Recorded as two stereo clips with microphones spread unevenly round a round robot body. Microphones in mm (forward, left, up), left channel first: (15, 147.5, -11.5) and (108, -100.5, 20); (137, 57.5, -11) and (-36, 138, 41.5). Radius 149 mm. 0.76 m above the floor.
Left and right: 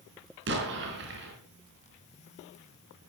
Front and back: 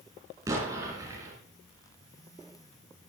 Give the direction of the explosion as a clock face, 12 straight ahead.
4 o'clock.